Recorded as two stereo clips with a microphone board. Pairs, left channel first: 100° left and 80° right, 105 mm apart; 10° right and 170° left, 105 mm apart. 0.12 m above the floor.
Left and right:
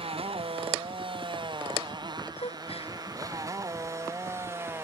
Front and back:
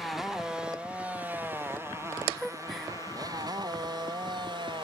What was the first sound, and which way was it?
A motorcycle, 100° right.